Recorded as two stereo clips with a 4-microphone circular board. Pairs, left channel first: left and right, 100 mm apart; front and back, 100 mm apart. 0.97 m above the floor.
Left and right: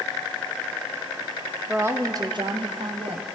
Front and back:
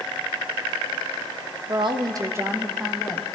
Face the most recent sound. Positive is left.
turn(degrees=-80)